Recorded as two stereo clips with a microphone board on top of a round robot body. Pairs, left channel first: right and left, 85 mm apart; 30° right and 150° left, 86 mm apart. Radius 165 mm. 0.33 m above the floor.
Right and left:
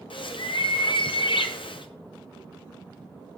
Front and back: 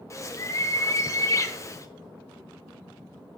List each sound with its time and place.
0.1 s a bird: 85° right, 1.6 m